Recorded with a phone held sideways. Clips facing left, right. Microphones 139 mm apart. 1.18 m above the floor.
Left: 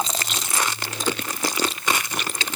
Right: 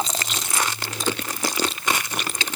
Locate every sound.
Only background noise.